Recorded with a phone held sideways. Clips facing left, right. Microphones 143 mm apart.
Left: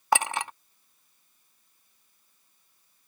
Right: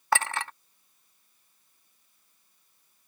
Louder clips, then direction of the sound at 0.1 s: Left 2 dB; 15° left (ahead or behind).